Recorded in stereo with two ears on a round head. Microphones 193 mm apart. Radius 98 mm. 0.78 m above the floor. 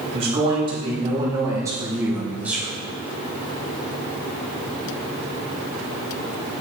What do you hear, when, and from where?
0.1 s a man speaking: 30° right (ahead or behind), 4 m; by 2.7 s 5° right (ahead or behind), 3.5 m